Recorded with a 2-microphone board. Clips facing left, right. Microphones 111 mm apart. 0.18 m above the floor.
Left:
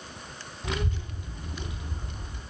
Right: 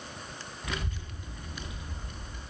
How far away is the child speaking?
About 0.6 m.